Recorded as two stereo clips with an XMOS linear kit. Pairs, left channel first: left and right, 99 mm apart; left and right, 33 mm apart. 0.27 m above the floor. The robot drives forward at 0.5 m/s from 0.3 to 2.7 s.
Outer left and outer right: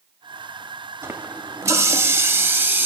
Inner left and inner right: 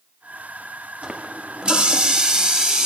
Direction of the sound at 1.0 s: 25° right (ahead or behind).